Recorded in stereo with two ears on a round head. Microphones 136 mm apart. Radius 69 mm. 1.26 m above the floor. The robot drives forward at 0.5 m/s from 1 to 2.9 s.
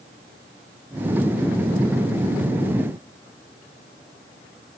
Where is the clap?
No clap in this recording.